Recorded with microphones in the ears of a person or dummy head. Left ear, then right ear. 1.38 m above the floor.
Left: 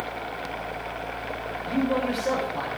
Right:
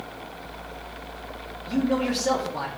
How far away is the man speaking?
About 3 m.